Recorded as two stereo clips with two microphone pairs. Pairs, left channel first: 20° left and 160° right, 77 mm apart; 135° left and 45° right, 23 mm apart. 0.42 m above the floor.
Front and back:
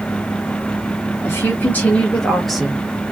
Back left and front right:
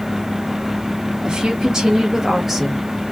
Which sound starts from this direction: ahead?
A woman speaking, at 1.2 s.